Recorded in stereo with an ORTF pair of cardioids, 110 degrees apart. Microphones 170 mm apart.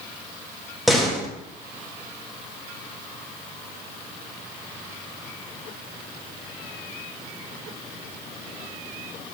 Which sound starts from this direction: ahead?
A door slam, at 0.9 s.